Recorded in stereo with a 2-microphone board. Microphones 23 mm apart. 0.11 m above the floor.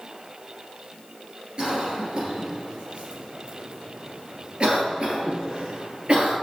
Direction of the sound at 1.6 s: 45° right (ahead or behind).